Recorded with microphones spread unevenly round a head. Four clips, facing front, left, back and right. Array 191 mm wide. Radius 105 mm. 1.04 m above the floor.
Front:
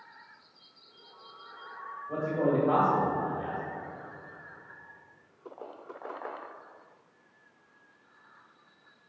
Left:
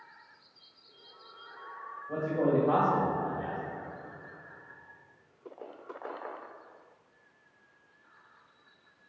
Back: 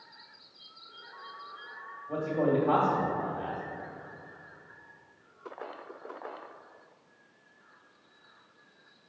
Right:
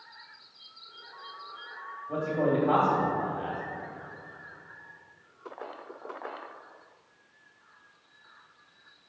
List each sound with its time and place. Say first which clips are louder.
2.1 s a man speaking: right 1 dB, even; 140° left, 1.8 m